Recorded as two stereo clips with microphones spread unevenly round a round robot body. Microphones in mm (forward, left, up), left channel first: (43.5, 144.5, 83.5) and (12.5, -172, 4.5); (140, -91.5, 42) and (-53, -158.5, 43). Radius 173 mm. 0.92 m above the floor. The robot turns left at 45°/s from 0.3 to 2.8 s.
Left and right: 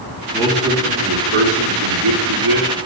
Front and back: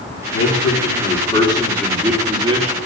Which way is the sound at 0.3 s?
Straight ahead.